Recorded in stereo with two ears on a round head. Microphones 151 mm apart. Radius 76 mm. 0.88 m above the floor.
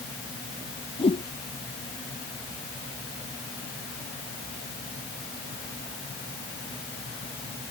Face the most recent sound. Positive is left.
turn(degrees=35)  # may be behind; listen again after turning